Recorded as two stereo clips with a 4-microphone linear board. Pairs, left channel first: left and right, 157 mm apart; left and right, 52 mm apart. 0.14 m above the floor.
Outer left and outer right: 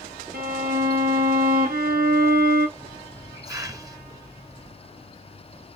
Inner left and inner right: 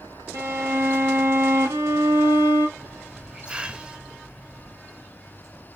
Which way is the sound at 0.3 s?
70° right (ahead or behind).